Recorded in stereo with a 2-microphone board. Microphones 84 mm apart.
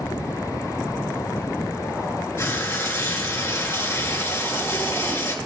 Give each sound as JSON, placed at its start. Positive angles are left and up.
{"t": 2.4, "sound": "frying", "side_deg": 30, "distance_m": 1.7}